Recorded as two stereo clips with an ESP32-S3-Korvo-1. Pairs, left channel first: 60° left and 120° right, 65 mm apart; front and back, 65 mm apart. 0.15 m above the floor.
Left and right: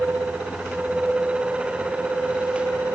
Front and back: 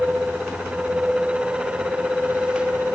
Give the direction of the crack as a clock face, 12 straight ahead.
I don't hear a crack.